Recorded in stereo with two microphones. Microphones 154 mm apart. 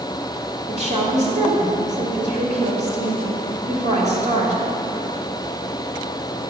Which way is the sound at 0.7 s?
50° right (ahead or behind).